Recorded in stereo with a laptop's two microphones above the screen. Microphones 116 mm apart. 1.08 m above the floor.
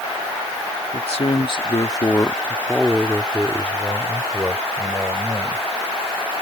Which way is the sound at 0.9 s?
65° left (ahead or behind).